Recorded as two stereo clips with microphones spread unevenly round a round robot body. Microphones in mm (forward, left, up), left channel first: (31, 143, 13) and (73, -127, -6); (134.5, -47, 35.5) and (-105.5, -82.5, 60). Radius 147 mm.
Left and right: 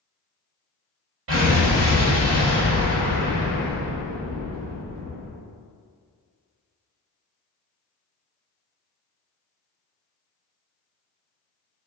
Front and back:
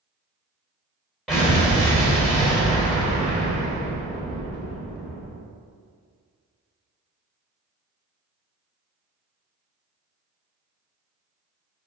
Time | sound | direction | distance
1.3 | an explosion | 80° right | 1.7 m